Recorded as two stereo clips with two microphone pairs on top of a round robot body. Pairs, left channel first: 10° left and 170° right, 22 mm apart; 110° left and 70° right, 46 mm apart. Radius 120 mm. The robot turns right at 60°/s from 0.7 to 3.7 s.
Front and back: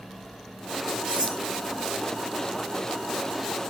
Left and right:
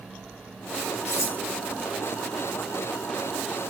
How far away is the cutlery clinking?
About 6.5 m.